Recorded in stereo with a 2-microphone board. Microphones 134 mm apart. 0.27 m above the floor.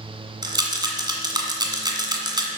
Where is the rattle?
30° right (ahead or behind), 1.6 m.